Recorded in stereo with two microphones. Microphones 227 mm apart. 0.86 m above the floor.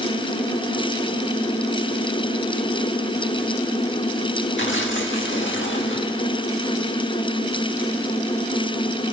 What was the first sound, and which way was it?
Tearing paper, 55° left (ahead or behind).